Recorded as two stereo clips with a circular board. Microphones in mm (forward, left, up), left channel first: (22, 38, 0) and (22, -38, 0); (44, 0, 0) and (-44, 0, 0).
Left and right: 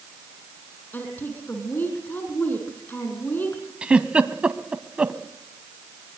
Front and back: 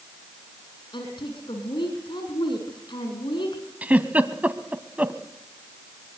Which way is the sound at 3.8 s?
140° right.